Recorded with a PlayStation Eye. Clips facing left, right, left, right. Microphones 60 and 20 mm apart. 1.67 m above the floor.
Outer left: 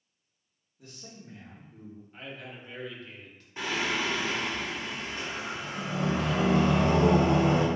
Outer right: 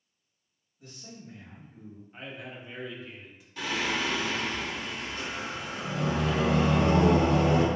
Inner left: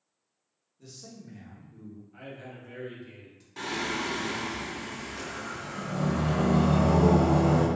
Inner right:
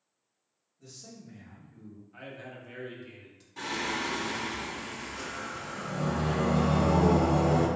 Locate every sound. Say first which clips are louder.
0.8 s a man speaking: outer right 1 dB, inner left 2 dB; 85° left, 1.8 m; by 2.0 s 75° left (ahead or behind), 1.4 m
2.1 s a man speaking: outer right 2 dB, inner right 1 dB; 10° right (ahead or behind), 0.8 m
3.6 s singing: even, inner left 1 dB; 30° left (ahead or behind), 0.9 m